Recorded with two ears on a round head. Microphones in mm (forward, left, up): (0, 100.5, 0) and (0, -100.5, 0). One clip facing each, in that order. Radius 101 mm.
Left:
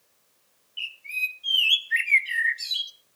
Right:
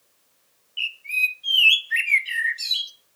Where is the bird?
5° right (ahead or behind), 0.6 m.